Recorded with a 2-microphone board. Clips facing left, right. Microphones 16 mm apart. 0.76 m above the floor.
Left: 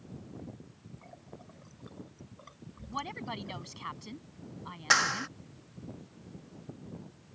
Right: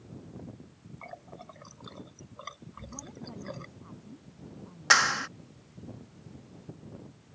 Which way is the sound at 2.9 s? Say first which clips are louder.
Left 9 dB; 80° left.